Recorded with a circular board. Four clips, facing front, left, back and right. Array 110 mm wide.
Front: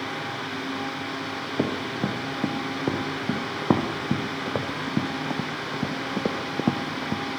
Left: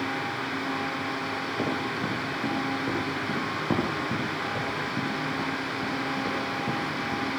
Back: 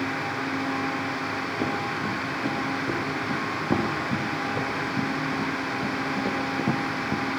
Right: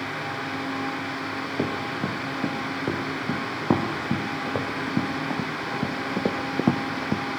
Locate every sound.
1.6 s running footsteps: 20° right, 10 m; by 7.2 s 75° right, 3.5 m